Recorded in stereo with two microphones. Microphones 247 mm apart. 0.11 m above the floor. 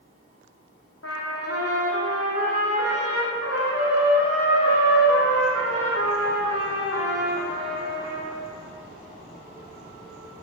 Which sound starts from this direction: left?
A trumpet, at 1.0 s.